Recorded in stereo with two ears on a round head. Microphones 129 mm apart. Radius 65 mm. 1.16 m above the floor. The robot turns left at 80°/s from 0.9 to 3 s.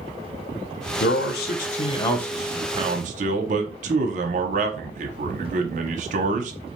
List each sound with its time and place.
1.0 s a man speaking: 110° left, 0.5 m; by 6.5 s 50° right, 0.5 m